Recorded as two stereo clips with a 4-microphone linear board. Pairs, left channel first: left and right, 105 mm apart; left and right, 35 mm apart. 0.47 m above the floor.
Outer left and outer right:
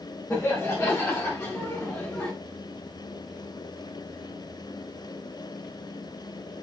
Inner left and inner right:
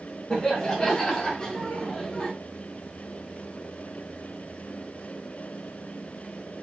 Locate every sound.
0.3 s laughter: 25° left (ahead or behind), 2.5 m; by 2.3 s 20° left (ahead or behind), 1.4 m